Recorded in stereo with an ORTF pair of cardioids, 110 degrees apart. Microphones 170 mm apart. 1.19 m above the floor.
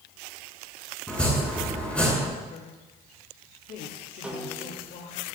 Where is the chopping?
5° left, 8 m.